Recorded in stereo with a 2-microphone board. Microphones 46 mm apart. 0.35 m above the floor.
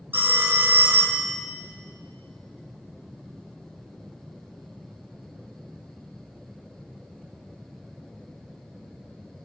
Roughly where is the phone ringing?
Right.